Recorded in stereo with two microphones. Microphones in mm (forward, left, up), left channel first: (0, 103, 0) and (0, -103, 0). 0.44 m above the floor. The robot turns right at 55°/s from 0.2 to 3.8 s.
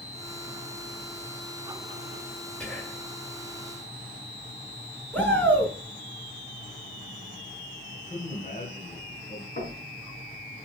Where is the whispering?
5° left (ahead or behind), 2.5 m; by 3.1 s 25° left (ahead or behind), 2.5 m.